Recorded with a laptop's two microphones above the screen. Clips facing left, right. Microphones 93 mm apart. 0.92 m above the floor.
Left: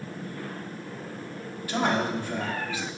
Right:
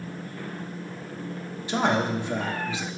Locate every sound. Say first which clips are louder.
1.7 s a man speaking: right 2 dB; 20° right (ahead or behind), 0.9 m